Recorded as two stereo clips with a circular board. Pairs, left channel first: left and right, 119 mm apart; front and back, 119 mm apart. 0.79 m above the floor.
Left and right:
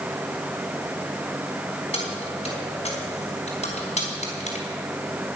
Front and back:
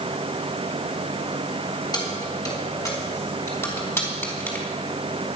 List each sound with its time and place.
1.9 s keys jangling: 55° left, 4.5 m; by 4.7 s 75° left, 4.5 m